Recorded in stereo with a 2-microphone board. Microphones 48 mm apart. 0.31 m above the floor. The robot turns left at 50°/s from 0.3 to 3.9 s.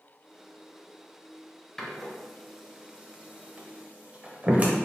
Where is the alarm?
I don't hear an alarm.